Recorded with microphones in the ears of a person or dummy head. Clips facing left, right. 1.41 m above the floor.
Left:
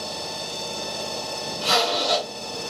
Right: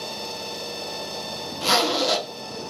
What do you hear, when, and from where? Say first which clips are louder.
1.6 s a zipper: right 1 dB; 75° right (ahead or behind), 0.7 m